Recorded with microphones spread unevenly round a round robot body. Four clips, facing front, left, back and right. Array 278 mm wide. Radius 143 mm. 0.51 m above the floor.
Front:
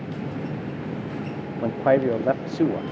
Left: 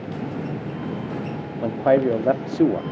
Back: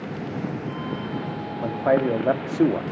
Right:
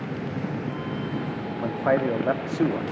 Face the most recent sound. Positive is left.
turn(degrees=130)